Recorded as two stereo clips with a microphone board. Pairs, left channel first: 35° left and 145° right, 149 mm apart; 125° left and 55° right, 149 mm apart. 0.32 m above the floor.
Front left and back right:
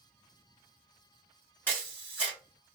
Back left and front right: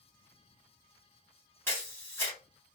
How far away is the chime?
I don't hear a chime.